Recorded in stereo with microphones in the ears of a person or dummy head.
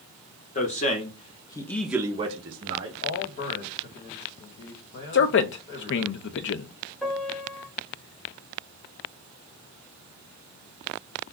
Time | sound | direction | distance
0.6 | a man speaking | 40° left (ahead or behind) | 1.1 m
3.0 | a man speaking | 60° left (ahead or behind) | 1.7 m
5.1 | a man speaking | 65° left (ahead or behind) | 0.5 m
7.0 | a piano | 5° left (ahead or behind) | 1.0 m